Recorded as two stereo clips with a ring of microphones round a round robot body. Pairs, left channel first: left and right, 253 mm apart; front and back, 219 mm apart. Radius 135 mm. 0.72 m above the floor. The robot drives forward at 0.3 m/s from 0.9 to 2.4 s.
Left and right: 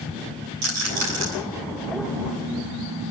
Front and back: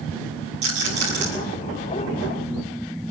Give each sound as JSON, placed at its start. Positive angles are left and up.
{"t": 0.6, "sound": "a rattle", "azimuth_deg": -115, "distance_m": 8.0}